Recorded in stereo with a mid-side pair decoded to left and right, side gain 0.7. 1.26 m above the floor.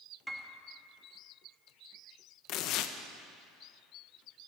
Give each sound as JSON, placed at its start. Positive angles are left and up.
{"t": 0.3, "sound": "a piano", "azimuth_deg": -5, "distance_m": 1.8}
{"t": 2.5, "sound": "tearing paper", "azimuth_deg": 60, "distance_m": 1.0}